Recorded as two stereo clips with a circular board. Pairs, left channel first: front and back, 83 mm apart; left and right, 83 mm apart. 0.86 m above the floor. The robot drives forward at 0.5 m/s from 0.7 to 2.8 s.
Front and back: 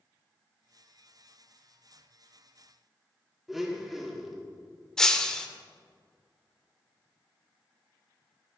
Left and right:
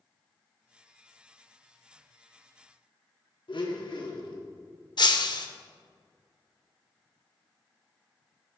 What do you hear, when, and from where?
3.5 s a blender: 95° left, 1.5 m
5.0 s breaking glass: 80° left, 0.8 m